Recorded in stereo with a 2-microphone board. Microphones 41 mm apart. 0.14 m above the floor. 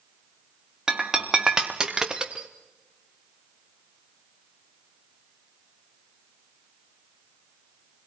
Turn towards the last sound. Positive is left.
turn(degrees=-15)  # may be behind; listen again after turning